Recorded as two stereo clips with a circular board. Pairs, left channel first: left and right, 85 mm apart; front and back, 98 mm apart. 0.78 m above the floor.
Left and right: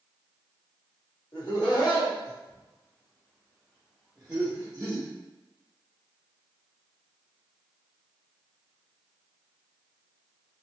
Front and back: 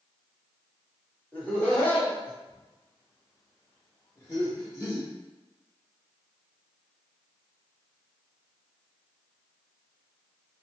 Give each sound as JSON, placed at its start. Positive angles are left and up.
{"t": 1.3, "sound": "laughter", "azimuth_deg": 75, "distance_m": 1.5}